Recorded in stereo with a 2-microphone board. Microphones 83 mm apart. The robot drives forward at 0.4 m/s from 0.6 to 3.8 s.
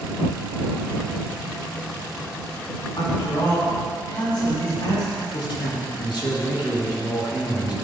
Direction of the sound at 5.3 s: 65° left (ahead or behind).